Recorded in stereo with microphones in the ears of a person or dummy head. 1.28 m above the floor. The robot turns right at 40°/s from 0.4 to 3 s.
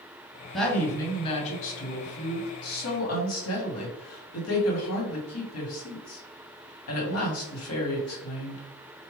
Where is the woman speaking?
Straight ahead, 1.5 m; by 8.6 s 100° left, 1.5 m.